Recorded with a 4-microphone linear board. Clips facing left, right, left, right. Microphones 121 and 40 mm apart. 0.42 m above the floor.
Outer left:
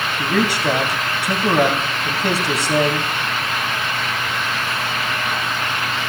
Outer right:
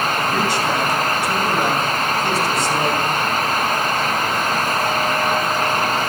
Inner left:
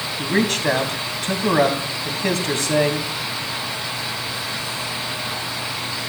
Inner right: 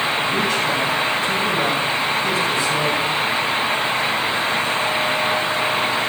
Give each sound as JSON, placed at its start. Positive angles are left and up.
{"t": 0.2, "sound": "a man speaking", "side_deg": 70, "distance_m": 3.0}